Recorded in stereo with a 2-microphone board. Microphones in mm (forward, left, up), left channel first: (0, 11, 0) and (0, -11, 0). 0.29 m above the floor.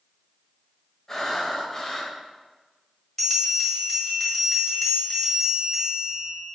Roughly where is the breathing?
Centre.